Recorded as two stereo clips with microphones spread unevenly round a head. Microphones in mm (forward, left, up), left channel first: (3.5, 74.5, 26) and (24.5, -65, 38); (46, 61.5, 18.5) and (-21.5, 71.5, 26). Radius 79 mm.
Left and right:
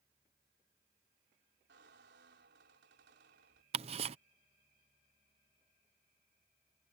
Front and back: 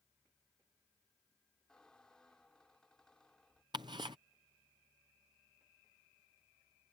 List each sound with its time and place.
1.7 s a squeak: 95° right
3.7 s ticking: 135° right